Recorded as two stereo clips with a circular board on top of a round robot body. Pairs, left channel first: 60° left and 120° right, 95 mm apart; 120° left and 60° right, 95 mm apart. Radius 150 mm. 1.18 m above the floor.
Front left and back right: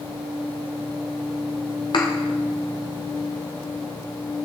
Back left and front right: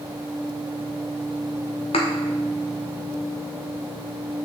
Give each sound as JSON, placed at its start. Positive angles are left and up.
{"t": 1.9, "sound": "a thud", "azimuth_deg": 100, "distance_m": 0.9}